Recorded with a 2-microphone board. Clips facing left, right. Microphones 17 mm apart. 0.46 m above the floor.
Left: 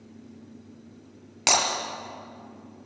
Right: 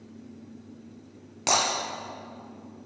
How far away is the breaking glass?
About 3.5 m.